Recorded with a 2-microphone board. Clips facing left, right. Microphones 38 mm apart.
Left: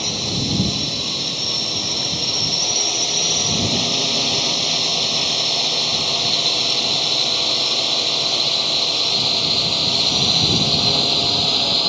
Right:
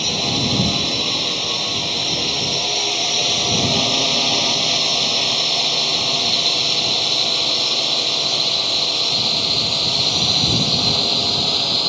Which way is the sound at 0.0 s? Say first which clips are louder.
Right 3 dB; 35° right (ahead or behind).